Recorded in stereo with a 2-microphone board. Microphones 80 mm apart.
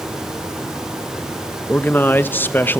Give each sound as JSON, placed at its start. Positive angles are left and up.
{"t": 1.7, "sound": "a man speaking", "side_deg": 25, "distance_m": 1.0}